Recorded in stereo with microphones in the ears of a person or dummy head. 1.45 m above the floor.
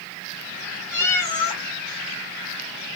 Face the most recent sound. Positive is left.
turn(degrees=15)  # may be behind; listen again after turning